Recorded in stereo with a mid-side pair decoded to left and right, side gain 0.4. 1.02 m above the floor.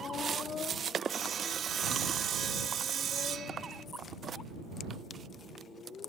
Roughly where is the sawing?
Ahead right.